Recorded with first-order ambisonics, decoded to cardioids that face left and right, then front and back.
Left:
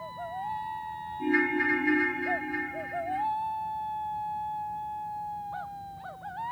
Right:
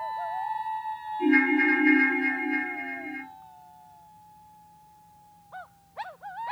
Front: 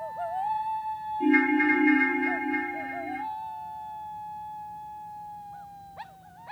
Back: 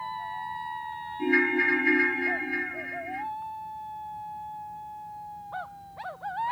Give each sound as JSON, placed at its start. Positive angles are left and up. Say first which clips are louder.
{"t": 1.2, "sound": "a ringtone", "louder": "right 4 dB, even", "azimuth_deg": -135, "distance_m": 2.5}